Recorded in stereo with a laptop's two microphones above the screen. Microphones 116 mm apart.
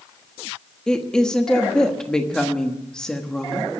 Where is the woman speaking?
5° left (ahead or behind), 1.1 m.